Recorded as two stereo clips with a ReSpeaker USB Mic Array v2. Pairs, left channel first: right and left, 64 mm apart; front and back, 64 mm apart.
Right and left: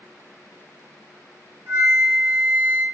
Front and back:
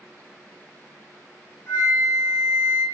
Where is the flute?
45° left, 1.0 m.